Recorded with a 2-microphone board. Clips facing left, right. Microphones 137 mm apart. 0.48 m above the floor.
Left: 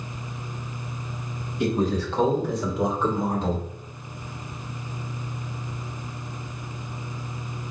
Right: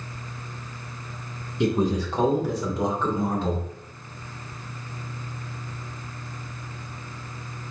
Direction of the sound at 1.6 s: 25° right (ahead or behind).